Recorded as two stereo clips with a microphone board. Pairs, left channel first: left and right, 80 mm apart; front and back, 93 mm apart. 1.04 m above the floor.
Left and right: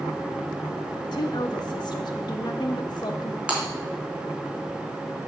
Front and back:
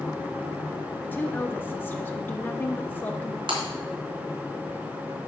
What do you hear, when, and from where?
1.0 s a woman speaking: 70° left, 1.1 m
3.5 s breaking glass: 165° right, 3 m